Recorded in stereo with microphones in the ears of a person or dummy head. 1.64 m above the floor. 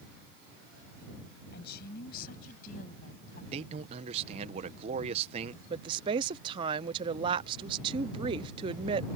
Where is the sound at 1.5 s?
60° left (ahead or behind); by 3.4 s 50° left (ahead or behind).